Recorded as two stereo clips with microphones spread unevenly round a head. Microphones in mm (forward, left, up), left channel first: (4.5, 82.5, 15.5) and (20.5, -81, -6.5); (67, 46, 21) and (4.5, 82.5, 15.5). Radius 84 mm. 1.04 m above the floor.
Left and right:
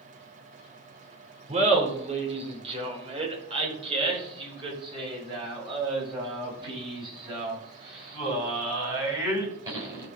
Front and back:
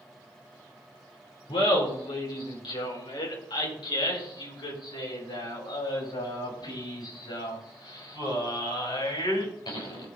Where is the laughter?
35° right, 4 m; by 10.1 s 15° right, 8.5 m.